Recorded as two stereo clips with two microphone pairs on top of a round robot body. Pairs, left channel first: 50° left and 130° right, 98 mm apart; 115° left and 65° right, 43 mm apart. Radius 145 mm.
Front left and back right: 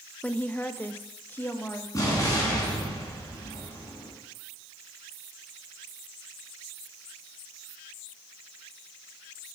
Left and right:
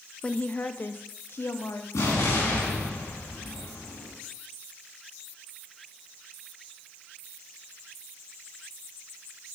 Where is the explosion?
110° left, 3.5 m.